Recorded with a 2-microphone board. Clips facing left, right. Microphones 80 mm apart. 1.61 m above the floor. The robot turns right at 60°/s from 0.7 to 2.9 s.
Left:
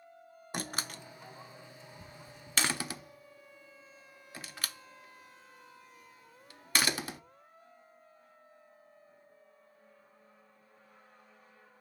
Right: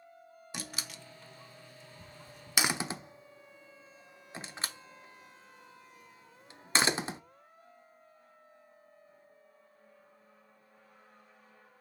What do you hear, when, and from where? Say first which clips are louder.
0.5 s a door slam: left 5 dB; 50° left (ahead or behind), 0.5 m; by 7.2 s 25° right (ahead or behind), 0.5 m